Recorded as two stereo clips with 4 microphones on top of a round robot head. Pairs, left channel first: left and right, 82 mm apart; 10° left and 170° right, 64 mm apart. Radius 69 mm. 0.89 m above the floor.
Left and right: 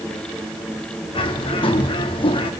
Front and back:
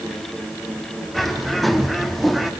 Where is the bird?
100° left, 2 m.